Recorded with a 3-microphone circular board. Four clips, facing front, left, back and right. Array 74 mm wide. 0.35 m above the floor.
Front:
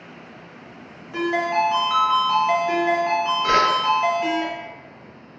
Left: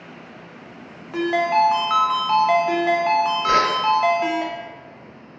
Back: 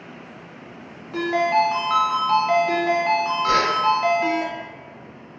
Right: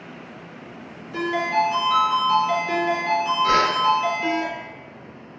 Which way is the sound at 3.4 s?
Straight ahead.